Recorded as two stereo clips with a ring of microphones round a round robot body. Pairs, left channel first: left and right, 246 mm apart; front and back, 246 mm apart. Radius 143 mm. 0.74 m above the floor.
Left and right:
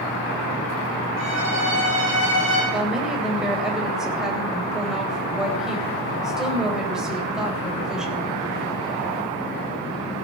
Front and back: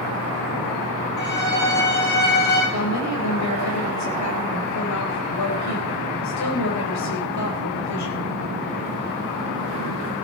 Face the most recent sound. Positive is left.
turn(degrees=-5)